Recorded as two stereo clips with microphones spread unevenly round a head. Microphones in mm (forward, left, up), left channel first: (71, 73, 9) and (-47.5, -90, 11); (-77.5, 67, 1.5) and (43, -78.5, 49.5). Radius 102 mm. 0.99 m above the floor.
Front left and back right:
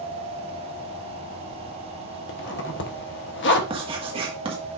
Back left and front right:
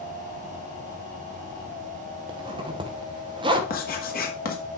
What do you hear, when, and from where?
2.3 s a zipper: 20° left, 0.9 m
3.7 s writing: 165° left, 1.5 m